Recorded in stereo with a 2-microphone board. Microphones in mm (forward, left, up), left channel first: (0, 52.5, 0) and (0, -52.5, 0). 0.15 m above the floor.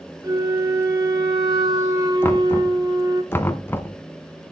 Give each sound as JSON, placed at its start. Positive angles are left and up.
{"t": 0.2, "sound": "a flute", "side_deg": -40, "distance_m": 2.0}
{"t": 2.2, "sound": "knocking", "side_deg": 20, "distance_m": 0.8}